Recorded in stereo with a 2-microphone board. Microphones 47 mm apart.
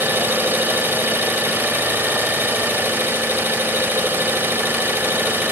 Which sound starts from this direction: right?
An engine running, at 0.0 s.